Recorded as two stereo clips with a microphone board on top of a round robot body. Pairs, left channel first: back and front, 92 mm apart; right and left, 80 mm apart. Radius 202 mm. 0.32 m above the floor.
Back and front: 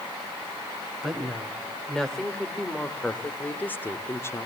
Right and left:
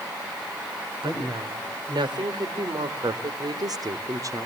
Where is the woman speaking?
90° left, 3 m; by 4.5 s 130° left, 1.5 m.